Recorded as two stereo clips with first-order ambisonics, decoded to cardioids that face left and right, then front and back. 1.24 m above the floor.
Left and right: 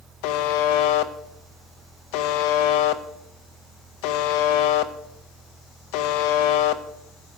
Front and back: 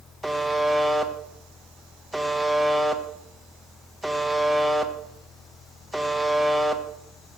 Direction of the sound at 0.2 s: 95° left.